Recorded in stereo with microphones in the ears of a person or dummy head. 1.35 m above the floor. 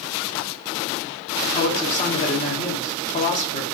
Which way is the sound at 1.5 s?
25° left (ahead or behind).